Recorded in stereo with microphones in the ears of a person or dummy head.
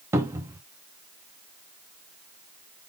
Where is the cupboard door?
15° right (ahead or behind), 0.6 m.